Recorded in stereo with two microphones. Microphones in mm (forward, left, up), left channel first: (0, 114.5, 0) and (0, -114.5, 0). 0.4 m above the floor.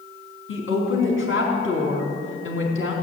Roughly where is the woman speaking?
Left.